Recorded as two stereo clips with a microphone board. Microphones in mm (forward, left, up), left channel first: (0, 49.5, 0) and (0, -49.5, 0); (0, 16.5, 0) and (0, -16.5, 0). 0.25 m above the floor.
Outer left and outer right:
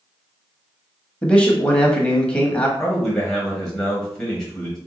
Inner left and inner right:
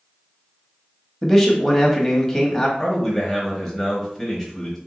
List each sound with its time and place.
1.2 s a man speaking: 10° left (ahead or behind), 1.0 m
2.8 s a man speaking: 5° left (ahead or behind), 1.0 m